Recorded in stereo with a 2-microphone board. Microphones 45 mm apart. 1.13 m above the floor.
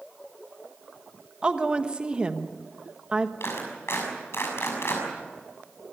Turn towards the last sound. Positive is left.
turn(degrees=70)  # may be behind; listen again after turning